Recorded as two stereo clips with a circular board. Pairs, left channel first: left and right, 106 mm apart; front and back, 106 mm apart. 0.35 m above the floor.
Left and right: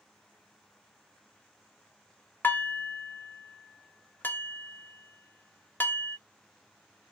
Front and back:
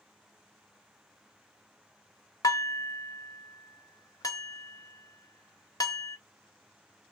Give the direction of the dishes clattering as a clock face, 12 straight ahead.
11 o'clock.